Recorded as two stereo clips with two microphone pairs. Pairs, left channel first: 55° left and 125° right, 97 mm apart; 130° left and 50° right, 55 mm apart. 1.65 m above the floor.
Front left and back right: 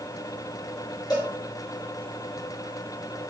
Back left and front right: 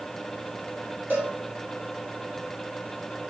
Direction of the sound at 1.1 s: 5° left.